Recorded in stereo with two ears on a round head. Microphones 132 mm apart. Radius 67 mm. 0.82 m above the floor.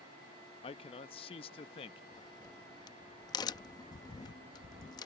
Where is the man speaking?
40° left (ahead or behind).